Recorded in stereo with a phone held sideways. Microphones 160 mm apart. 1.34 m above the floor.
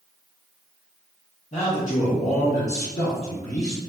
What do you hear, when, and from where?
1.5 s a man speaking: 45° left (ahead or behind), 0.8 m